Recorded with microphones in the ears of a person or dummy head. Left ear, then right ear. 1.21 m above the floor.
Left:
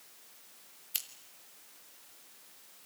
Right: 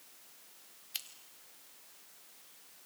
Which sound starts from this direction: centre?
Scissors, at 0.9 s.